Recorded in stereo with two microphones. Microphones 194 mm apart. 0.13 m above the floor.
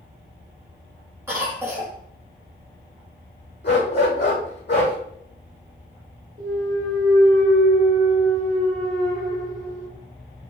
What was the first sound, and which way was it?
A cough, 10° right (ahead or behind).